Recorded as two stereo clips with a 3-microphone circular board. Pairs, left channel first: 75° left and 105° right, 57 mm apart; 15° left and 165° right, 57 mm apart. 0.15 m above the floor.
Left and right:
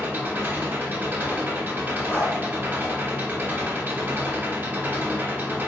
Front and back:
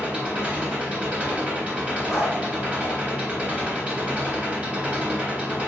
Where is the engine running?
115° right, 1.2 m.